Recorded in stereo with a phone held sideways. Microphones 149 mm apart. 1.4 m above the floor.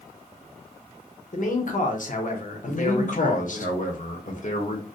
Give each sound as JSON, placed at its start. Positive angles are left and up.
{"t": 1.3, "sound": "a man speaking", "side_deg": 60, "distance_m": 0.7}
{"t": 2.7, "sound": "a man speaking", "side_deg": 60, "distance_m": 0.8}